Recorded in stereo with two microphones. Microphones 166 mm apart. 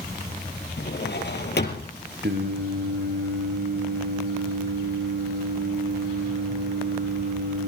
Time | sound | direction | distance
0.8 | a drawer | 80° left | 3 m
2.2 | singing | 75° right (ahead or behind) | 3 m